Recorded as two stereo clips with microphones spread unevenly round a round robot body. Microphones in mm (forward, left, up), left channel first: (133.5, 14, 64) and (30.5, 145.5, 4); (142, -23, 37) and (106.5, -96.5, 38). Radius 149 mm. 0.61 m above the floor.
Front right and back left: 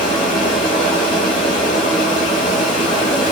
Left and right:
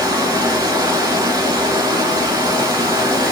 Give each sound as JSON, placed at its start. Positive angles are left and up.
{"t": 0.0, "sound": "running water", "azimuth_deg": -95, "distance_m": 1.0}